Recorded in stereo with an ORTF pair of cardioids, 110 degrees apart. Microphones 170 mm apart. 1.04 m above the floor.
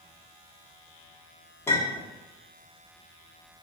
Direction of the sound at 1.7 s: 15° left.